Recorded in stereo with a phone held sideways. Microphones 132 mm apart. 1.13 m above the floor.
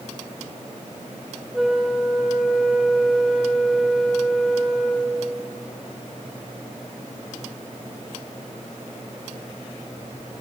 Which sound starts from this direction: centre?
A flute, at 1.5 s.